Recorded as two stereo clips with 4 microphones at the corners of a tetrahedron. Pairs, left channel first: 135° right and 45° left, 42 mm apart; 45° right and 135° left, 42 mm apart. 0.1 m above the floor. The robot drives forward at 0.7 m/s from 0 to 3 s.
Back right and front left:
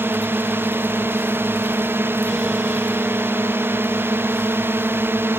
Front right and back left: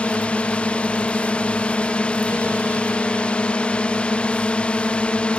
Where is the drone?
20° left.